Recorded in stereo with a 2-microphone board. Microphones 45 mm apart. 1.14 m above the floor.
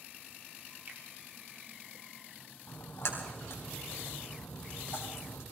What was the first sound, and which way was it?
A finger snap, 50° right (ahead or behind).